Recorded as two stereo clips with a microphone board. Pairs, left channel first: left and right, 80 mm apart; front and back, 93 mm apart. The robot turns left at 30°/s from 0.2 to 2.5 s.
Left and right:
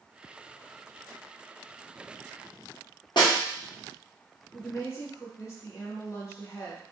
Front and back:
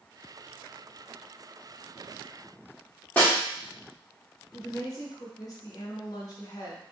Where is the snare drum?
70° left, 1.7 m.